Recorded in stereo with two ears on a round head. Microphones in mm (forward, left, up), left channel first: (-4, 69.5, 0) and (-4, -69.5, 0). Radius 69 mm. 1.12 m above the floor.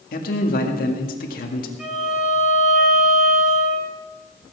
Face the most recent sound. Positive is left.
turn(degrees=-5)  # may be behind; listen again after turning